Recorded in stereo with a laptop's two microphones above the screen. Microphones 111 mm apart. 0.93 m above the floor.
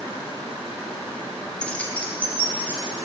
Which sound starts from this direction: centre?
Keys jangling, at 1.6 s.